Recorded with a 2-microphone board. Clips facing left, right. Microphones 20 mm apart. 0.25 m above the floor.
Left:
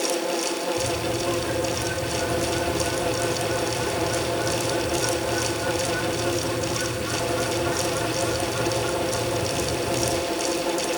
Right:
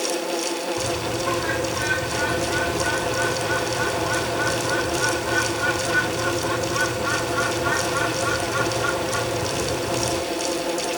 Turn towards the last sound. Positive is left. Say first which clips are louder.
# right 1 dB
turn(degrees=-45)  # may be behind; listen again after turning